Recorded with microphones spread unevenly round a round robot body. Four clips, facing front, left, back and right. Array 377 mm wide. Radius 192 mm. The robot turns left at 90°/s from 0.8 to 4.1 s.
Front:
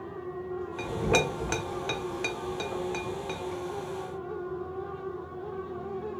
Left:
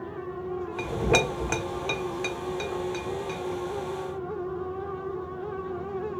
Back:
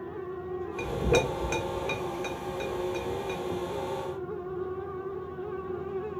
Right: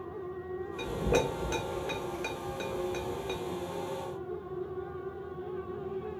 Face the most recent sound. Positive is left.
turn(degrees=-155)